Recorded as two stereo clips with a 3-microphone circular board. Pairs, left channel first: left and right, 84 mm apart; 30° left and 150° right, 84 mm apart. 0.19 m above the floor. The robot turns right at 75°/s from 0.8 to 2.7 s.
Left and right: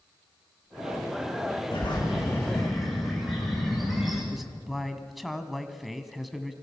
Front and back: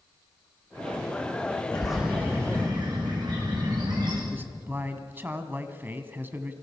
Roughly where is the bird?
Left.